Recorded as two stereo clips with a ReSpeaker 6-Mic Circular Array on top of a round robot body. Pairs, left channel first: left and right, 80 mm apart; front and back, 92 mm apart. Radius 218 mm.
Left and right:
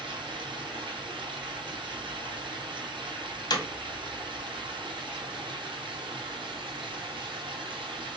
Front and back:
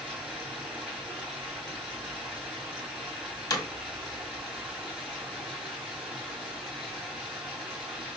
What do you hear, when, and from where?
0.0 s running water: 95° right, 3 m
3.5 s hammering: 55° left, 1.8 m